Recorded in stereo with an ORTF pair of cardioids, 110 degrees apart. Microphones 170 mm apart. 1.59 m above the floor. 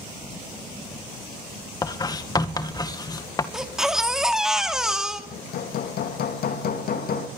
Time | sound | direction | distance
1.8 | writing | 25° left | 1.9 m
3.5 | a baby crying | 5° right | 2.5 m
5.3 | hammering | 65° left | 2 m